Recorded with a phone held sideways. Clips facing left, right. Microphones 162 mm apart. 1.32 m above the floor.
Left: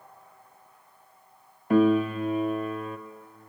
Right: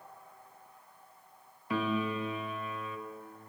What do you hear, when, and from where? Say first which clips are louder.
1.7 s a piano: left 12 dB; 50° left (ahead or behind), 0.5 m